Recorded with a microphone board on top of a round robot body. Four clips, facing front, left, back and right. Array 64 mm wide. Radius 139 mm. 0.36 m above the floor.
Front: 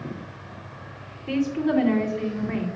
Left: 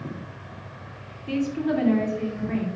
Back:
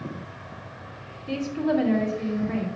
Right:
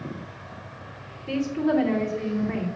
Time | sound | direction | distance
1.3 | a woman speaking | 10° right | 2 m